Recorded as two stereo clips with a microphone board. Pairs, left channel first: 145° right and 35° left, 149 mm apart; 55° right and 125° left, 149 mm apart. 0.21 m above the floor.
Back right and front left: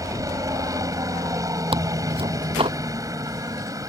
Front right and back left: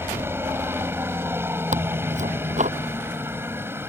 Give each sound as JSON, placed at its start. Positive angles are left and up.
{"t": 0.0, "sound": "a helicopter", "azimuth_deg": 70}
{"t": 1.7, "sound": "tearing paper", "azimuth_deg": 85}